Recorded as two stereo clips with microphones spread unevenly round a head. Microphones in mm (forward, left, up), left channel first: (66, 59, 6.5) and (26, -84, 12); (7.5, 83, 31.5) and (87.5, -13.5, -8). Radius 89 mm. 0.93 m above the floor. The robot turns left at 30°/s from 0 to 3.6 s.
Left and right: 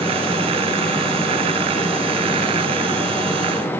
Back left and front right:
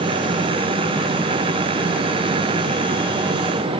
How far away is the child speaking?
No child speaking in this recording.